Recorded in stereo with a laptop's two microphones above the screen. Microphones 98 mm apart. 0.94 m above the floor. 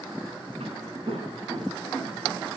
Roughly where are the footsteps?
Right.